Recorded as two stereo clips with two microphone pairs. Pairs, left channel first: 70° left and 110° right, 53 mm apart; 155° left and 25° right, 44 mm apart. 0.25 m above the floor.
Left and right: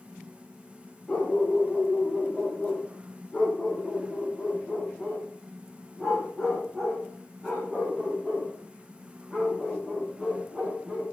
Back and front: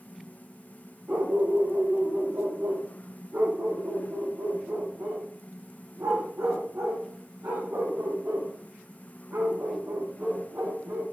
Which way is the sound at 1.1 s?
Straight ahead.